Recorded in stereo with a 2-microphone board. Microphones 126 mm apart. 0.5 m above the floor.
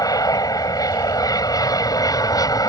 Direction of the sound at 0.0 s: 30° left (ahead or behind).